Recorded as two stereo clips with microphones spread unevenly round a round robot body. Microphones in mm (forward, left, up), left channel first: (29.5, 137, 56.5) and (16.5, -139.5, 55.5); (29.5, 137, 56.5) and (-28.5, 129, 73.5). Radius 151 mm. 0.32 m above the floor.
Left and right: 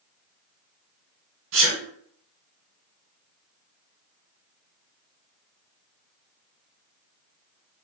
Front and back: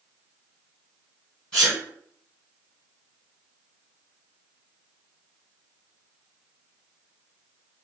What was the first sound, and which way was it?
A sneeze, 60° right.